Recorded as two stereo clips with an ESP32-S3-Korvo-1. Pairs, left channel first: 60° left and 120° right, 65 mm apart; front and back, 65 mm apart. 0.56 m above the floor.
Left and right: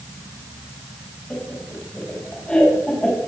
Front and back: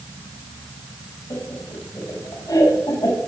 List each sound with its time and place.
1.3 s laughter: 10° right, 3.5 m